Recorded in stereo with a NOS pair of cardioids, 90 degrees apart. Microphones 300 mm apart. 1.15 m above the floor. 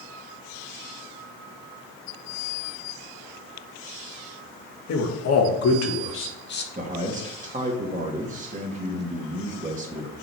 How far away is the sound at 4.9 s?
About 1.8 m.